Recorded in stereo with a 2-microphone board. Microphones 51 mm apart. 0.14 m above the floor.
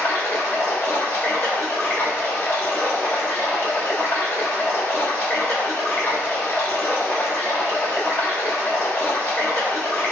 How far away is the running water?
About 1.6 m.